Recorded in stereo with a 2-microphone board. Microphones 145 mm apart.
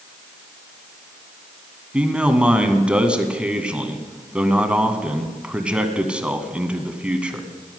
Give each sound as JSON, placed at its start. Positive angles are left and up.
{"t": 1.9, "sound": "a man speaking", "side_deg": -5, "distance_m": 1.6}